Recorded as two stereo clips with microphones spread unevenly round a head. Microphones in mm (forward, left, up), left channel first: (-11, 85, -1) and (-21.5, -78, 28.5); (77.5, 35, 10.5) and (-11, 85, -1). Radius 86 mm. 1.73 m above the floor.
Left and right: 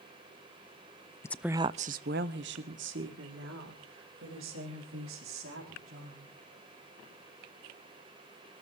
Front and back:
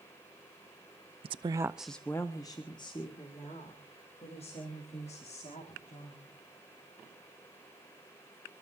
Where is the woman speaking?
165° left, 0.5 m; by 6.3 s 80° right, 5 m.